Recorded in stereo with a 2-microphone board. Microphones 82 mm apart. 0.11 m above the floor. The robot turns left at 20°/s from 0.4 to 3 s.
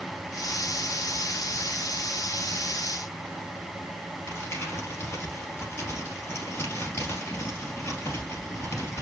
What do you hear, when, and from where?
4.3 s crumpling: 35° left (ahead or behind), 2.5 m